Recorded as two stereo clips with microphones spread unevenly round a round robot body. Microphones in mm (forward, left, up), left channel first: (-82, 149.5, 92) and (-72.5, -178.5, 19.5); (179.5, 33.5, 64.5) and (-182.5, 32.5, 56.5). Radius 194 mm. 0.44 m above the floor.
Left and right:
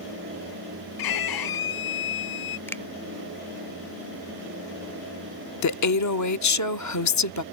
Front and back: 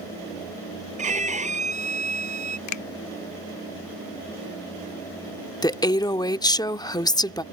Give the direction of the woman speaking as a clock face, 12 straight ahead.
9 o'clock.